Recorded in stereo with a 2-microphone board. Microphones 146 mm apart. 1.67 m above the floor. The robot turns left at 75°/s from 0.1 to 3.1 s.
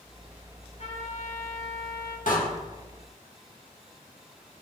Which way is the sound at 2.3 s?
65° left (ahead or behind).